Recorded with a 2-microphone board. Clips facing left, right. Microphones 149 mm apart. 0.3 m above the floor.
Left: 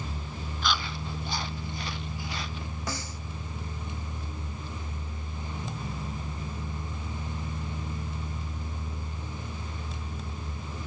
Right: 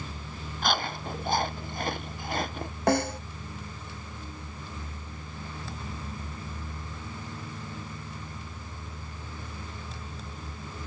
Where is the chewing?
55° right (ahead or behind).